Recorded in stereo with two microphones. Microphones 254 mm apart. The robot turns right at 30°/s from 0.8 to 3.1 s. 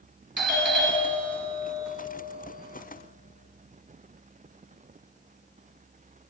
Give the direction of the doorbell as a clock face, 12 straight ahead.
2 o'clock.